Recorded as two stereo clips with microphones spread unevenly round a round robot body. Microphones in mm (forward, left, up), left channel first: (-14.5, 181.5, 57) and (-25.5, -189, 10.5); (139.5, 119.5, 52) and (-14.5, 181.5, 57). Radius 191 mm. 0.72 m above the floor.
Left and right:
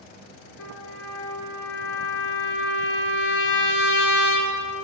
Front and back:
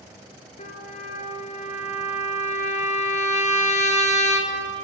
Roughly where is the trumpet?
Ahead left.